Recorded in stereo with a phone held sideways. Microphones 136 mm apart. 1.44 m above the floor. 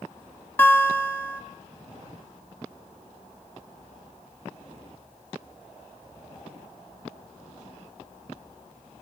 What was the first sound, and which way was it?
A guitar, 15° left (ahead or behind).